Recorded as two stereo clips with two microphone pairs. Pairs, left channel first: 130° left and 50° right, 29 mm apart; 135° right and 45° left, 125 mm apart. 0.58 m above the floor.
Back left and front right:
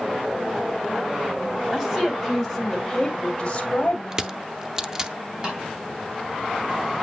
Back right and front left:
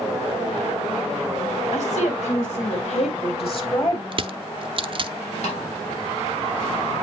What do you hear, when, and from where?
1.7 s a woman speaking: 125° right, 3 m; by 4.0 s 175° left, 2.5 m
4.1 s crushing: 15° left, 0.5 m
5.4 s a snare drum: 110° right, 3.5 m